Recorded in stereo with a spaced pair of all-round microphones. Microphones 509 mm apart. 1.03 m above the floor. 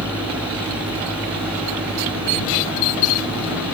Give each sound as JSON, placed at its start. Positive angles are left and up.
{"t": 0.0, "sound": "an engine running", "side_deg": -5}